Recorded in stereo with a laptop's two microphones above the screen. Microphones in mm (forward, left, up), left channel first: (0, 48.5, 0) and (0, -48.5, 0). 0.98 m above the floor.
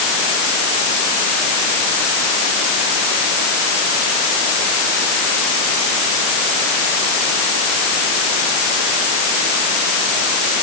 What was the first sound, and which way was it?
Only background noise.